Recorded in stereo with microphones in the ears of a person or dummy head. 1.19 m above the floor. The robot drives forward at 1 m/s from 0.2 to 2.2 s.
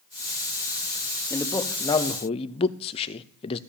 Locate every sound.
1.3 s a man speaking: 15° left (ahead or behind), 1.4 m; by 3.6 s 35° left (ahead or behind), 0.6 m